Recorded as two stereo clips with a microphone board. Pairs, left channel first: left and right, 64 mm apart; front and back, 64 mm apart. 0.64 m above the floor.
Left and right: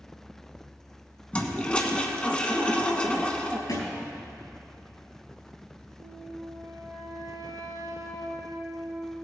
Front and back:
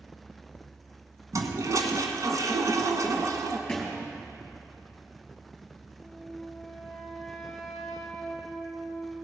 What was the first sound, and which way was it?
A toilet flushing, 160° left.